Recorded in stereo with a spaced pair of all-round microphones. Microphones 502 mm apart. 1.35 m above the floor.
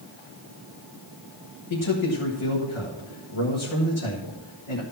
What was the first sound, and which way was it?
A man speaking, 75° left (ahead or behind).